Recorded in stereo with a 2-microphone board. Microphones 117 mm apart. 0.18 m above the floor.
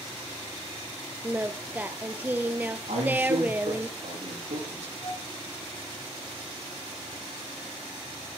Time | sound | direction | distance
1.2 | singing | 15° right (ahead or behind) | 1.0 m
2.9 | a man speaking | 70° right (ahead or behind) | 8.5 m
5.0 | a flute | 40° left (ahead or behind) | 7 m